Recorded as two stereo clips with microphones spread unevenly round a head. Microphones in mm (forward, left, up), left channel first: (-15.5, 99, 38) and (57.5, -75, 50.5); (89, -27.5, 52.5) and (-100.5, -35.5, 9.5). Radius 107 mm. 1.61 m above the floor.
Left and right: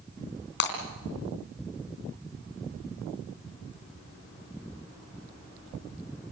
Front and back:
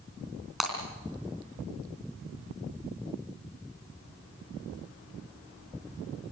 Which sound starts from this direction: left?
Breaking glass, at 0.6 s.